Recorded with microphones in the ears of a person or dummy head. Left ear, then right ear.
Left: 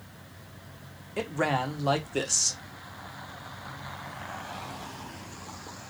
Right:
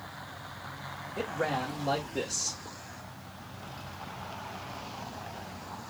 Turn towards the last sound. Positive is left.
turn(degrees=65)  # may be behind; listen again after turning